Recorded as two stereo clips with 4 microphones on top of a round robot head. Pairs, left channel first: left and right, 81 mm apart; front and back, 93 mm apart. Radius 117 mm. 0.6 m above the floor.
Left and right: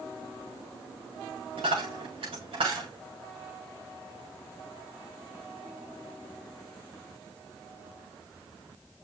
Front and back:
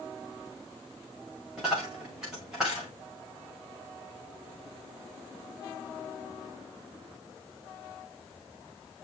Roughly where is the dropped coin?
Right.